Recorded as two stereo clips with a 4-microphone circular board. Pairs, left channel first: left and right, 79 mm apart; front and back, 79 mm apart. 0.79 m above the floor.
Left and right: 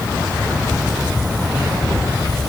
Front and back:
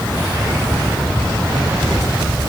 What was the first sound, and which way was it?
Only background noise.